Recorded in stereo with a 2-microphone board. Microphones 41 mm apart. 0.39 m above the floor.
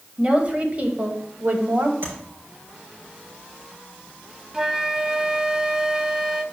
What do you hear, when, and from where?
0.2 s a woman speaking: 25° right (ahead or behind), 1.7 m; by 1.9 s 60° right (ahead or behind), 1.8 m
2.0 s tapping: 80° right, 4 m
4.5 s a flute: 15° right (ahead or behind), 0.6 m